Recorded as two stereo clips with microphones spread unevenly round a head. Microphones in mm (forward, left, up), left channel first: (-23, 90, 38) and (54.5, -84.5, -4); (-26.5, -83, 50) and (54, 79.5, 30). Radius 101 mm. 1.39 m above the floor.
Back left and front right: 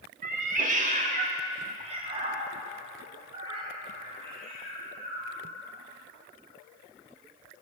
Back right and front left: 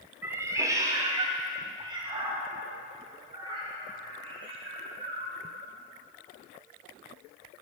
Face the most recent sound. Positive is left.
turn(degrees=0)